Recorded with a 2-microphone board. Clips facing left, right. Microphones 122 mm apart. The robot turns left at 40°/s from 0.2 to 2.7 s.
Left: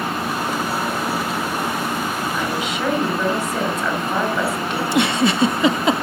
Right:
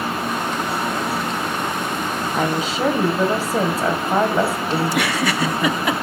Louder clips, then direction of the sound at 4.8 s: Left 6 dB; 25° left (ahead or behind).